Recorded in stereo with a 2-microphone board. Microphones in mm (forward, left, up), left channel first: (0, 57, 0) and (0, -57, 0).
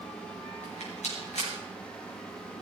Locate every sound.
0.6 s a rattle: 80° left, 6 m